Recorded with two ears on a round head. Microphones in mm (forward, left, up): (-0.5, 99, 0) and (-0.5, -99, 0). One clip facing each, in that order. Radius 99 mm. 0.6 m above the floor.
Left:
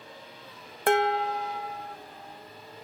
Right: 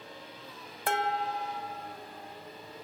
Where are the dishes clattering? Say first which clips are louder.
Left 7 dB; 55° left (ahead or behind), 0.7 m.